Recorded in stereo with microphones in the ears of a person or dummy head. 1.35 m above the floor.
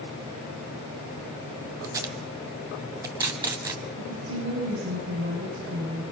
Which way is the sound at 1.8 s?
20° right (ahead or behind).